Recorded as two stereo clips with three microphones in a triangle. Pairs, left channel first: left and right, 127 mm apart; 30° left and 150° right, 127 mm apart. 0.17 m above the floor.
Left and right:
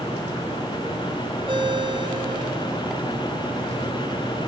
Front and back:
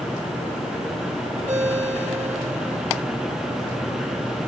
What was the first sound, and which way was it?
A ringtone, 135° right.